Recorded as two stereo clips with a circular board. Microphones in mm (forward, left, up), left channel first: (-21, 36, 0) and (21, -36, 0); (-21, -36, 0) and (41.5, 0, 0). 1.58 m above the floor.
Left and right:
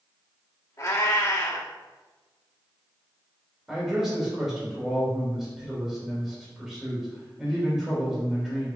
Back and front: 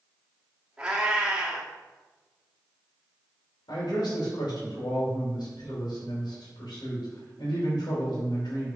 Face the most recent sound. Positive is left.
turn(degrees=-145)